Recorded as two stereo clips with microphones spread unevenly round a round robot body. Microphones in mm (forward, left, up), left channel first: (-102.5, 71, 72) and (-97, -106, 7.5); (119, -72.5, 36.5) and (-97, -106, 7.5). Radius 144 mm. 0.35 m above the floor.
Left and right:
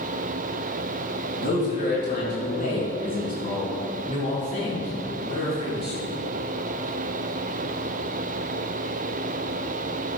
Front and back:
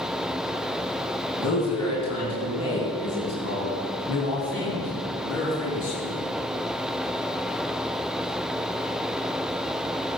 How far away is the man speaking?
About 5 m.